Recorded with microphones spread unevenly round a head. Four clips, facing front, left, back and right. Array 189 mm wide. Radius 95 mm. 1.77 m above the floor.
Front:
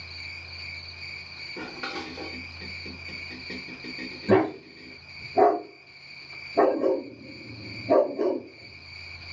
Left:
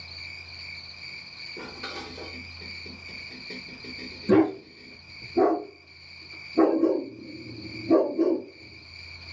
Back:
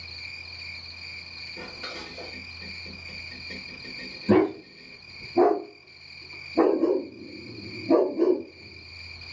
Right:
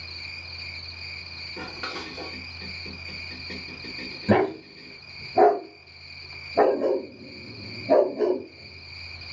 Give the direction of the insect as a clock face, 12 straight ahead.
12 o'clock.